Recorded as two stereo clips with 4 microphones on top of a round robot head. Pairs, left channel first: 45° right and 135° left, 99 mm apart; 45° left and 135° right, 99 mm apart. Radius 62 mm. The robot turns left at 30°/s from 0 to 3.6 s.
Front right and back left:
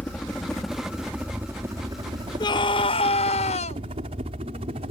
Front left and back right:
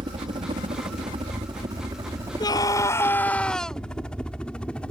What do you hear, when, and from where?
0.0 s a helicopter: 115° right; by 4.9 s 125° left
2.4 s a scream: straight ahead; by 3.8 s 40° right